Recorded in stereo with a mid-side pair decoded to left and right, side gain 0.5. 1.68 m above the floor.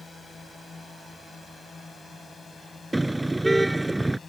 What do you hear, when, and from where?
0.0 s a drone: 25° left
2.9 s a car horn: 10° right